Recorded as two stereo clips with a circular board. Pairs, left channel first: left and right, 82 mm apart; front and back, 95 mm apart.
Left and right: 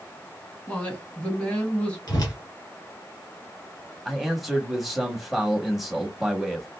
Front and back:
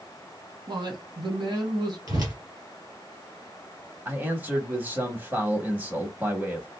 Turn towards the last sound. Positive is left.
turn(degrees=-175)